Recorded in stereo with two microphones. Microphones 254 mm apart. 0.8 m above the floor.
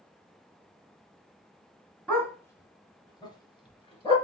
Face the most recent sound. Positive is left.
turn(degrees=20)  # may be behind; listen again after turning